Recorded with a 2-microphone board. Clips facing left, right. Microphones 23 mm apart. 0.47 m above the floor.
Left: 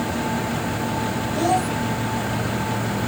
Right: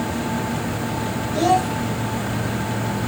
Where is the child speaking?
25° right (ahead or behind), 1.6 m.